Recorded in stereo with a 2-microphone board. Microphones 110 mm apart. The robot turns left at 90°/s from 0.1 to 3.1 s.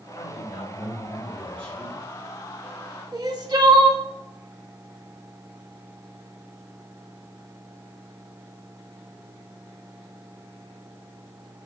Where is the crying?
35° right (ahead or behind), 0.9 m.